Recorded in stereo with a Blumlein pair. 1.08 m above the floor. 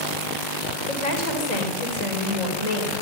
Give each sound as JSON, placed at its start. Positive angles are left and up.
{"t": 0.9, "sound": "a woman speaking", "azimuth_deg": 40, "distance_m": 3.5}